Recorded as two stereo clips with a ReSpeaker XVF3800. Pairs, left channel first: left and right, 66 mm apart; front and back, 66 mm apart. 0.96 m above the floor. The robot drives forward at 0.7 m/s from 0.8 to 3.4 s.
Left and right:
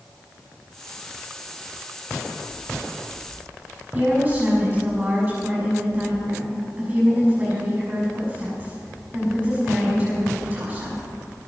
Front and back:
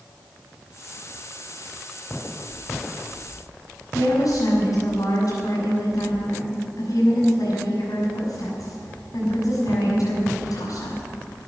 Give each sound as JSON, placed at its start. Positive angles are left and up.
{"t": 3.9, "sound": "a woman speaking", "azimuth_deg": -30, "distance_m": 6.5}